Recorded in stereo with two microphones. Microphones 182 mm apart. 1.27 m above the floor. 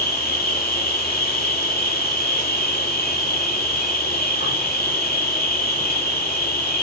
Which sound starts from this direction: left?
An insect, at 0.0 s.